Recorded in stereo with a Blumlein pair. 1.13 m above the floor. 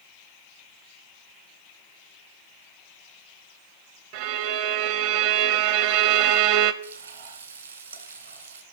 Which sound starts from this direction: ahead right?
A violin, at 4.1 s.